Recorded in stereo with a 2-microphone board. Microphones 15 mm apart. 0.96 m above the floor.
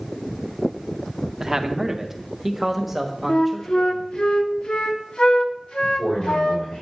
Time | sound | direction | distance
1.4 | a man speaking | 30° right (ahead or behind) | 0.7 m
3.3 | a flute | 70° left (ahead or behind) | 0.7 m
5.8 | a man speaking | 70° left (ahead or behind) | 4.5 m